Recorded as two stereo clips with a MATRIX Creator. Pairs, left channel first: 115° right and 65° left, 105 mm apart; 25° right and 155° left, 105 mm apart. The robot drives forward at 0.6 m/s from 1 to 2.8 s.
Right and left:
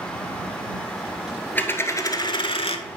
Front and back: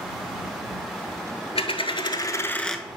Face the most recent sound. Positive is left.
turn(degrees=-110)